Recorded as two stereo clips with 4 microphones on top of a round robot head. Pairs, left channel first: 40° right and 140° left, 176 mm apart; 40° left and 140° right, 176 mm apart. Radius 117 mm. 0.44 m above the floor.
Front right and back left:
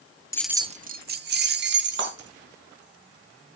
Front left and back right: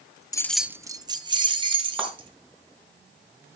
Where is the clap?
135° left, 4.5 m.